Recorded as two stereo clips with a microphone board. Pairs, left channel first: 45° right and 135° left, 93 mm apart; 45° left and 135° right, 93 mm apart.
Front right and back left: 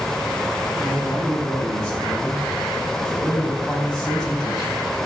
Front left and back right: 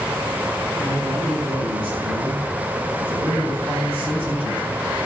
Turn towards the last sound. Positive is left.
turn(degrees=-125)